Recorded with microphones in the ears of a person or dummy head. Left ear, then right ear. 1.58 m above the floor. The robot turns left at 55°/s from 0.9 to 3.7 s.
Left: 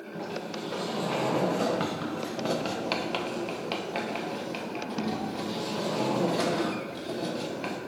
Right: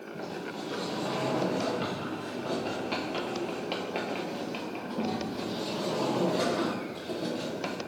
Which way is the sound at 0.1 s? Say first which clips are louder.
Left 3 dB; 170° left.